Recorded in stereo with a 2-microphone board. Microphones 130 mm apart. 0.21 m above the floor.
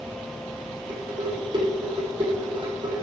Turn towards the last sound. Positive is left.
turn(degrees=-40)  # may be behind; listen again after turning